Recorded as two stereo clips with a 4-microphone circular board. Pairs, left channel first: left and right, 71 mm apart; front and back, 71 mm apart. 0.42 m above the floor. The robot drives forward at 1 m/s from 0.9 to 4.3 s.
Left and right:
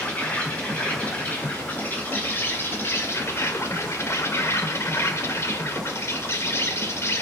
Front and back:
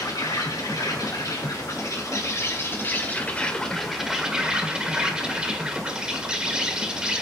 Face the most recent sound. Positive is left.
turn(degrees=110)